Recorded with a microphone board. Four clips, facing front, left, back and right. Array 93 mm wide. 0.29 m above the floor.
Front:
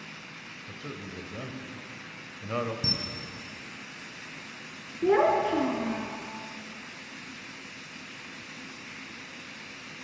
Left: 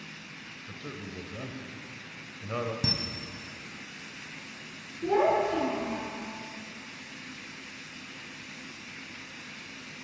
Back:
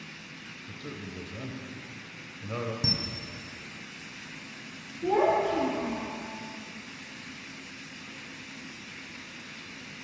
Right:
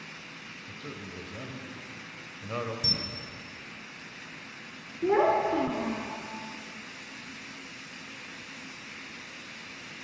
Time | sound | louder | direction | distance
0.7 | a man speaking | left 1 dB, even | 5° left | 1.0 m
2.8 | a camera shutter | left 4 dB, back 2 dB | 95° left | 1.5 m
5.0 | a child speaking | right 1 dB, front 2 dB | 25° right | 1.8 m